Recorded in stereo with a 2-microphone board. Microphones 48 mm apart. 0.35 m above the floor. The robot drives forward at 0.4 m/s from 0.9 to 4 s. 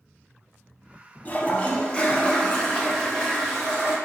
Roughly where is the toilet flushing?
Left.